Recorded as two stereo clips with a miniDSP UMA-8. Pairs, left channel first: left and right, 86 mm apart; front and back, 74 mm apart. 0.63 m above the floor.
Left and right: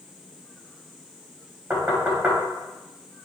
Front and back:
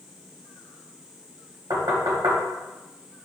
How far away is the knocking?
About 3 m.